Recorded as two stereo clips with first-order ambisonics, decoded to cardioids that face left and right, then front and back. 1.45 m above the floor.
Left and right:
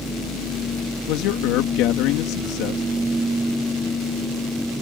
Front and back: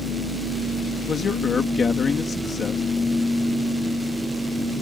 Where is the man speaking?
65° left.